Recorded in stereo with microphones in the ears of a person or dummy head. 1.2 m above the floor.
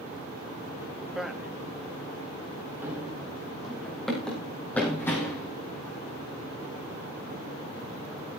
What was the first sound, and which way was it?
A man speaking, centre (ahead or behind).